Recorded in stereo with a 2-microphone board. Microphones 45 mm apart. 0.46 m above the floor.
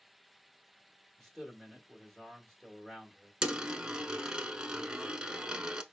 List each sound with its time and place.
1.2 s a man speaking: centre (ahead or behind), 1.3 m
3.4 s a dropped coin: 25° right (ahead or behind), 0.6 m